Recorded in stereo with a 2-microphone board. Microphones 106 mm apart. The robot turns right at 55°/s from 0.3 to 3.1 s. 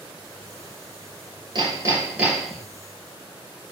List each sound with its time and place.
1.6 s hammering: 50° right, 5 m; by 2.6 s 10° left, 5 m